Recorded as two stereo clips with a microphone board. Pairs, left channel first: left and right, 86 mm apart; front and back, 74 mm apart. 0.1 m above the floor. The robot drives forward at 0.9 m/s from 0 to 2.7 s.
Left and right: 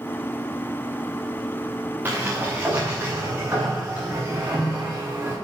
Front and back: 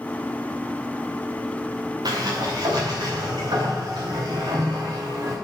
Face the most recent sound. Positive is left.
turn(degrees=-160)